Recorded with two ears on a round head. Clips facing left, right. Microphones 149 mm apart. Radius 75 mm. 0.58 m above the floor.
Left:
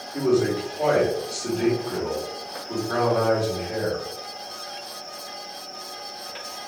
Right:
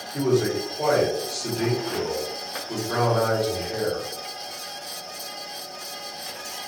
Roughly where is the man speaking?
Centre.